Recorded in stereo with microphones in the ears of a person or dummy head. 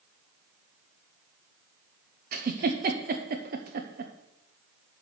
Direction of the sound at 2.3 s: 45° right (ahead or behind).